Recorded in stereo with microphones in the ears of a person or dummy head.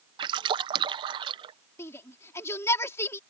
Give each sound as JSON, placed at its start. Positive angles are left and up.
{"t": 0.2, "sound": "a splash", "side_deg": -30}
{"t": 1.8, "sound": "a shout", "side_deg": 15}